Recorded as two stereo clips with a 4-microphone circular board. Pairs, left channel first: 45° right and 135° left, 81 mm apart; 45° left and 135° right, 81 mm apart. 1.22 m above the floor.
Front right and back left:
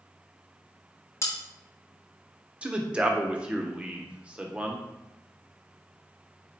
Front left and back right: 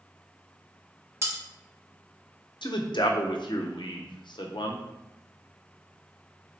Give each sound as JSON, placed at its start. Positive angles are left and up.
{"t": 1.2, "sound": "cutlery clinking", "azimuth_deg": -90, "distance_m": 0.7}
{"t": 2.6, "sound": "a man speaking", "azimuth_deg": 60, "distance_m": 0.5}